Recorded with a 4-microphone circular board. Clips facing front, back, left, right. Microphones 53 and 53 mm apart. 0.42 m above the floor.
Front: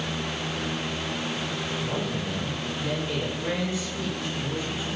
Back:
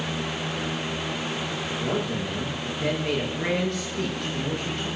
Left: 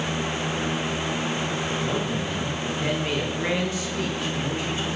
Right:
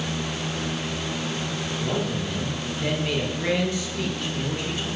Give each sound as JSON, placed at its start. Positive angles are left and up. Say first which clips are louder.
{"t": 1.8, "sound": "a man speaking", "louder": "back 5 dB, left 1 dB", "azimuth_deg": 160, "distance_m": 7.5}